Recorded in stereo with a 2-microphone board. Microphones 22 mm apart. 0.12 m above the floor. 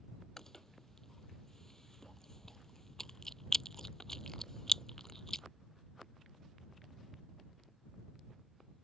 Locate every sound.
0.4 s chewing: 20° left (ahead or behind)